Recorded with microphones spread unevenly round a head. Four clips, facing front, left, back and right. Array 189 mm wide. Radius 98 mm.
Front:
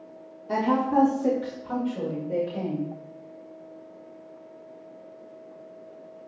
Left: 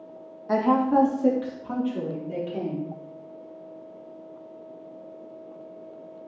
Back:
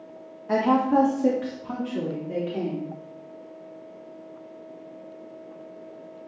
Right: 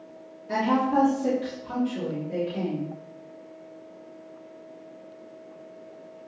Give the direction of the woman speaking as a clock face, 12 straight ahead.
7 o'clock.